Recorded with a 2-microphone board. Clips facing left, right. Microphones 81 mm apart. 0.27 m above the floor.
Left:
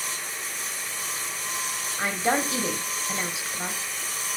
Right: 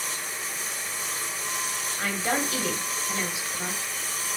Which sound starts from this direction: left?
A woman speaking, at 2.0 s.